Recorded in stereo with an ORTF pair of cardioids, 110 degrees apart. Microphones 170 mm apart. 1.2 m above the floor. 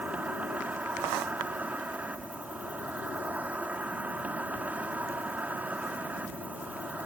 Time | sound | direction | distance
0.0 | an insect | 10° right | ?